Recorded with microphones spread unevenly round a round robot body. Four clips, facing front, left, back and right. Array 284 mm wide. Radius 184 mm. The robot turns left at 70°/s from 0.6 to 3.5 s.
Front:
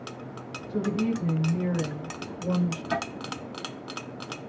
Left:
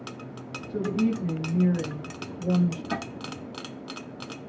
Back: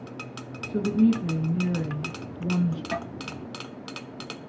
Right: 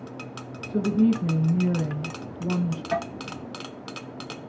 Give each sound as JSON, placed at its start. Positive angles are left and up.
{"t": 0.7, "sound": "a woman speaking", "azimuth_deg": 90, "distance_m": 1.2}
{"t": 2.9, "sound": "tapping", "azimuth_deg": 120, "distance_m": 0.7}